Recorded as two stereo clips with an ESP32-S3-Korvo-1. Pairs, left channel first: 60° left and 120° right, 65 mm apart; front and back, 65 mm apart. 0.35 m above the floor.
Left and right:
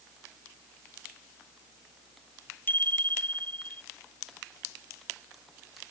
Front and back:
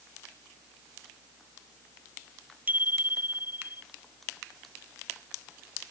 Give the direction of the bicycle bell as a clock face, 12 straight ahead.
8 o'clock.